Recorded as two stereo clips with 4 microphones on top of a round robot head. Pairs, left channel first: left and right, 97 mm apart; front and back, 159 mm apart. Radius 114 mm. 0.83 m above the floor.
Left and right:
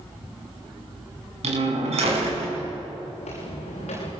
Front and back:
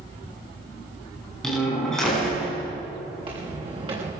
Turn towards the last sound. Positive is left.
turn(degrees=125)